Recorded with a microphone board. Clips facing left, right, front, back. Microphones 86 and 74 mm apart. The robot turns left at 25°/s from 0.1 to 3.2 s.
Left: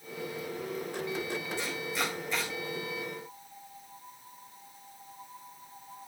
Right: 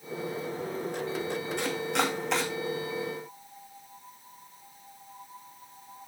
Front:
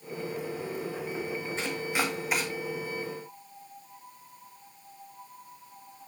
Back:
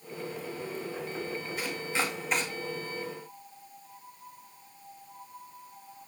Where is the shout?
I don't hear a shout.